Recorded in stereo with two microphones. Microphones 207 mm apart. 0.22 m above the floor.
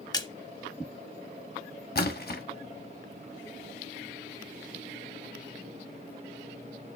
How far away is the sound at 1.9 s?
About 1.0 m.